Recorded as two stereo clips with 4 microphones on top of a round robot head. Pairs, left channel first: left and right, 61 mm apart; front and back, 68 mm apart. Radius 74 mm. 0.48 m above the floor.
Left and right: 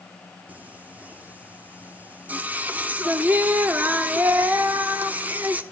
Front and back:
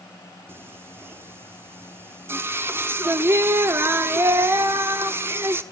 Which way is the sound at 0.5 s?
145° right.